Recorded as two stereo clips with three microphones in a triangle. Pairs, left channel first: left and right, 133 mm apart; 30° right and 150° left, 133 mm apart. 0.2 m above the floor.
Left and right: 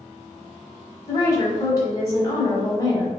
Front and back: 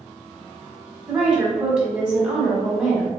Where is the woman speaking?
75° left, 1.1 m.